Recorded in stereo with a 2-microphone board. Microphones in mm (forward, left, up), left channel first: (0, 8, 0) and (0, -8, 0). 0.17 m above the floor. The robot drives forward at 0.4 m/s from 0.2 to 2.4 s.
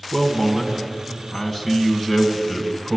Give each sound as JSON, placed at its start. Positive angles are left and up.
{"t": 0.1, "sound": "a man speaking", "side_deg": -15, "distance_m": 1.4}